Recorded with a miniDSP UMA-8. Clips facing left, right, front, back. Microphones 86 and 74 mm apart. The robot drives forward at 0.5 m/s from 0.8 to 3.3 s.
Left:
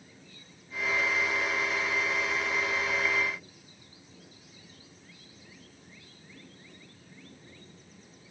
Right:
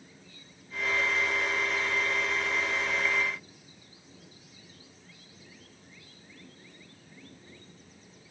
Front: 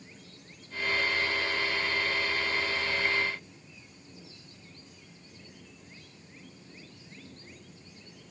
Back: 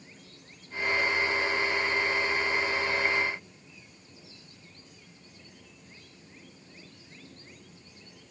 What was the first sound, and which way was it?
Only background noise.